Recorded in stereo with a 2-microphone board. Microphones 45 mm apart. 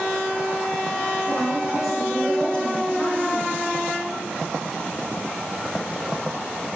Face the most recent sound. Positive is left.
turn(degrees=45)  # may be behind; listen again after turning